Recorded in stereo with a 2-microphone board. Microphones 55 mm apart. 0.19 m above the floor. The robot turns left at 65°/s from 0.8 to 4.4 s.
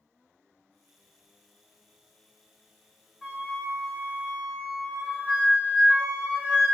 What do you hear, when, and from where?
3.2 s a flute: 5° right (ahead or behind), 1.0 m; by 6.7 s 25° right (ahead or behind), 1.0 m